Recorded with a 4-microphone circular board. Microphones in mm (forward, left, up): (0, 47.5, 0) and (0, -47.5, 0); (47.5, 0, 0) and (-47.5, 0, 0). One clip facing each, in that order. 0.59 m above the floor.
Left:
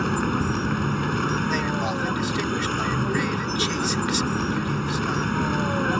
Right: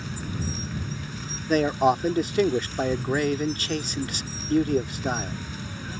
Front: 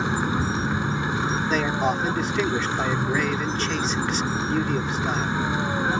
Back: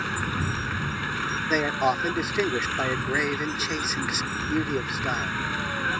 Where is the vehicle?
70° left.